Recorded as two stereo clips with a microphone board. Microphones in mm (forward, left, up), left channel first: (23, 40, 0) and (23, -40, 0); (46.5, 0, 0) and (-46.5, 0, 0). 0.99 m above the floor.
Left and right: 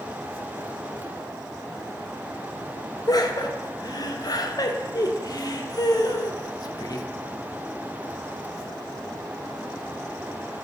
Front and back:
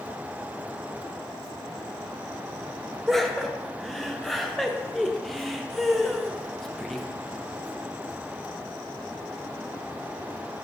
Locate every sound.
3.1 s laughter: 85° left, 0.6 m